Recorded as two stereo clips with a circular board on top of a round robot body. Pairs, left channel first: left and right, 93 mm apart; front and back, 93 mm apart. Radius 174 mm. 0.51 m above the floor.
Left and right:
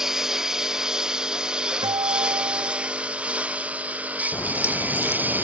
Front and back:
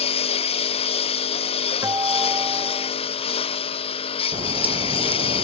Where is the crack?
155° left.